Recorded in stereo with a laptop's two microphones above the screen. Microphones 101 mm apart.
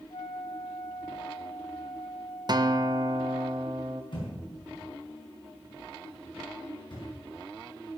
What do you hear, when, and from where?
0.1 s a flute: 60° left (ahead or behind), 1.6 m
2.5 s a guitar: 45° right (ahead or behind), 0.7 m
4.1 s a thud: 50° left (ahead or behind), 5 m